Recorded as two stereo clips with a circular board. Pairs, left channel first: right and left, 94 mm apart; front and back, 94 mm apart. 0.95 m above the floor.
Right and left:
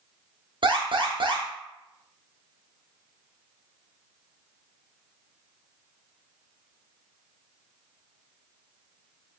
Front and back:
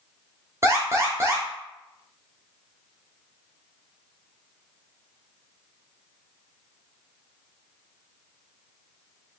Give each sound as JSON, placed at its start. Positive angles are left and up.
{"t": 0.6, "sound": "an alarm", "azimuth_deg": 120, "distance_m": 0.8}